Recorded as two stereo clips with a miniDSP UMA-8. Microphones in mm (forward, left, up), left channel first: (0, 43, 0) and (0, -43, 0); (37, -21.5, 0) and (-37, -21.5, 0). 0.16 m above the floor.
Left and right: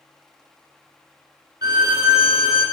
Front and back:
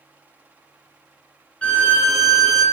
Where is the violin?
70° right, 1.1 m.